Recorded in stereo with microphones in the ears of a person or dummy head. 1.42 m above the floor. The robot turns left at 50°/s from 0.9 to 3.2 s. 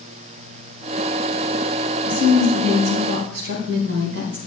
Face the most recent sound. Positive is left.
turn(degrees=-60)